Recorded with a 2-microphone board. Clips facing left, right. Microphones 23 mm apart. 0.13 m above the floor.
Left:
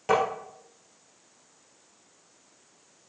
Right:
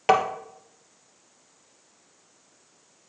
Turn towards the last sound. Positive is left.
turn(degrees=-55)  # may be behind; listen again after turning